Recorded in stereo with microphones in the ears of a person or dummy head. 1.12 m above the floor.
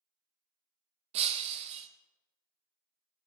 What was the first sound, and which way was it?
Breaking glass, 35° right (ahead or behind).